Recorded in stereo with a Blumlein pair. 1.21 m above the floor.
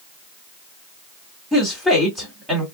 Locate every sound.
1.5 s a woman speaking: 5° left, 2 m